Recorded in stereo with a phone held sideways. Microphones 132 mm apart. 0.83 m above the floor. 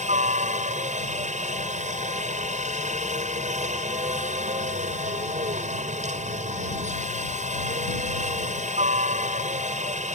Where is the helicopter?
65° right (ahead or behind).